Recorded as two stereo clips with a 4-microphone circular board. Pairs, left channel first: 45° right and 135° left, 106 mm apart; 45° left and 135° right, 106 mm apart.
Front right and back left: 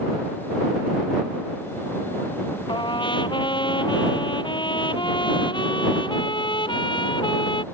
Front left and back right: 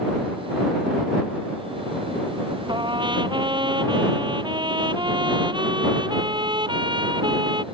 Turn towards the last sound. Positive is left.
turn(degrees=-90)